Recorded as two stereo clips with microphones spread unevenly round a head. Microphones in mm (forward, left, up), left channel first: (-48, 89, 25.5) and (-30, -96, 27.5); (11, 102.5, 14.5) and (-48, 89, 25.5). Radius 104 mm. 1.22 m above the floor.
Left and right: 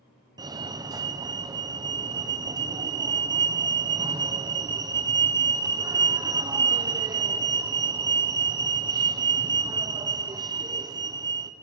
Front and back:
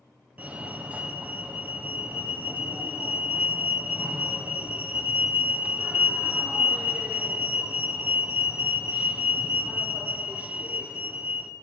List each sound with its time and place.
0.4 s a fire alarm: 105° right, 1.3 m